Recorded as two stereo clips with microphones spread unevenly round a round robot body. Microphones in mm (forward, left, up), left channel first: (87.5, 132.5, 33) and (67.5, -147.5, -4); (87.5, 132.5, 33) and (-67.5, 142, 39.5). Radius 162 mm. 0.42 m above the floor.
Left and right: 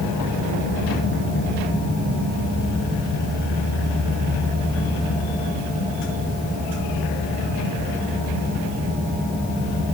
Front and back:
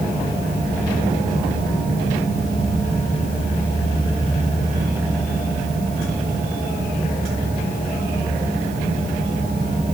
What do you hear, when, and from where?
Only background noise.